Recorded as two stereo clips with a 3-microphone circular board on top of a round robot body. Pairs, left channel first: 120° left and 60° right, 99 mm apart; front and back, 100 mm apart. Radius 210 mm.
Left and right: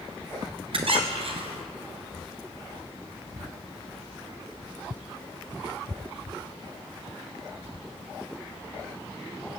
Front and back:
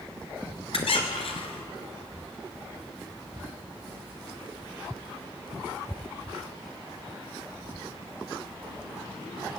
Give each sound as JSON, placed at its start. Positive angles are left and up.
{"t": 0.7, "sound": "a squeak", "azimuth_deg": -30, "distance_m": 1.3}